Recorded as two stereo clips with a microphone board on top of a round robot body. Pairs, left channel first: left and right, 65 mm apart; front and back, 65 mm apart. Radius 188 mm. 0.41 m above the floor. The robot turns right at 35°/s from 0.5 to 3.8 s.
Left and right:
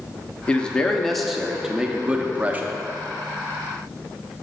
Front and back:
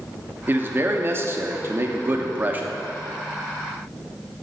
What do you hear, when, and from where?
0.5 s a man speaking: 150° left, 1.1 m; by 2.8 s 130° right, 1.1 m